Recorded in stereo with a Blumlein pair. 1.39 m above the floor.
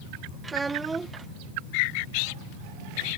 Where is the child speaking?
10° right.